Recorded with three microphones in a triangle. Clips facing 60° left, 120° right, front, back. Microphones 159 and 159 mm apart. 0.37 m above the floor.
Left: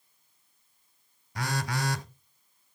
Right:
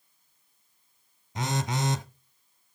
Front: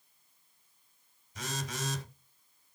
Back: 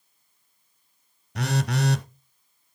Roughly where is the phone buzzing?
Behind.